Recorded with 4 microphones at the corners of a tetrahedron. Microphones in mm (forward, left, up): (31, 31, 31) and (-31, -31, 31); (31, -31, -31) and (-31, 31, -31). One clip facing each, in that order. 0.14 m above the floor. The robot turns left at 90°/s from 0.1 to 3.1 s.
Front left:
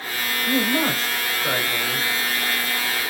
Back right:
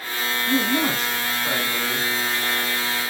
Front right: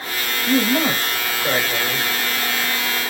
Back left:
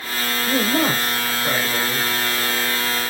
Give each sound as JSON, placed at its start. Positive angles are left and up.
{"t": 0.5, "sound": "a man speaking", "azimuth_deg": 95, "distance_m": 1.6}